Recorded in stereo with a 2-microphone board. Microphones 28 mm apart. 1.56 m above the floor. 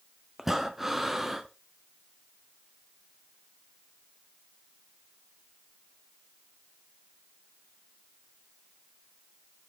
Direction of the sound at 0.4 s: 10° right (ahead or behind).